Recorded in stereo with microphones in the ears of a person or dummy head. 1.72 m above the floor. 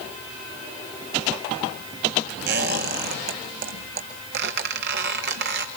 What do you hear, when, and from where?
2.5 s a squeak: 55° right (ahead or behind), 1.9 m